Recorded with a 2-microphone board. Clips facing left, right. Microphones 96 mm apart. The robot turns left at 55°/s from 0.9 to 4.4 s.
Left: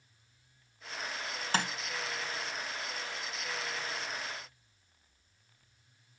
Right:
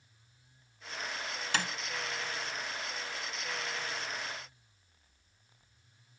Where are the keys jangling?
I don't hear keys jangling.